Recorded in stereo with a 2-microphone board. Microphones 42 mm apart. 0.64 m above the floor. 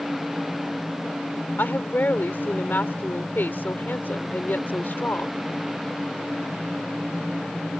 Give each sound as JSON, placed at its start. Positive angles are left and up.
{"t": 1.6, "sound": "a woman speaking", "side_deg": 60}